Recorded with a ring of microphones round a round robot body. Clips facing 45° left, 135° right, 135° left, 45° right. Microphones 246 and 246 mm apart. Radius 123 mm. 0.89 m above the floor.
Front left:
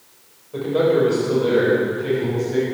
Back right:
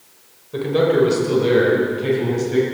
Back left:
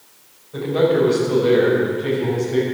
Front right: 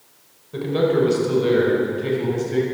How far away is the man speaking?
About 4.5 m.